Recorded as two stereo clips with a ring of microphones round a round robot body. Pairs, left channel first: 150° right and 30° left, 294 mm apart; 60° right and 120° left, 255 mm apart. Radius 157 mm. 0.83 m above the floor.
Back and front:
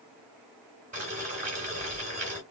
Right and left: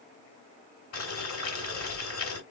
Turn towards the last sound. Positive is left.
turn(degrees=-35)